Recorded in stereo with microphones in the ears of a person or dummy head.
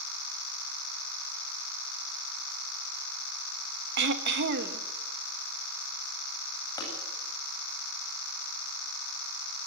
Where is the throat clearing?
65° right (ahead or behind), 1.3 m.